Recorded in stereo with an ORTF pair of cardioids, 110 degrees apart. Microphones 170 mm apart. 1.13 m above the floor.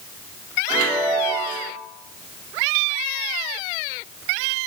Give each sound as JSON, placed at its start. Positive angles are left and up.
{"t": 0.7, "sound": "a chime", "azimuth_deg": -55, "distance_m": 0.9}